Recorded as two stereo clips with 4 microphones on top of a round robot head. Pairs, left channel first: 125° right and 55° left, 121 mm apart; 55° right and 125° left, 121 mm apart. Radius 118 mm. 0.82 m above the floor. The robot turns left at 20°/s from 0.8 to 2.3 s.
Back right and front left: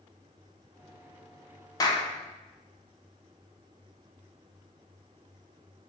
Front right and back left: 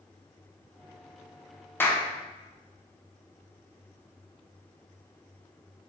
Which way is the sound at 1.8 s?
110° right.